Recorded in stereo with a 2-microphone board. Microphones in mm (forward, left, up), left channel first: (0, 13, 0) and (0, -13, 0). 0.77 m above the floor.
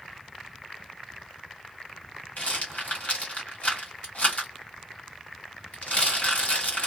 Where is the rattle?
60° left (ahead or behind), 1.7 m.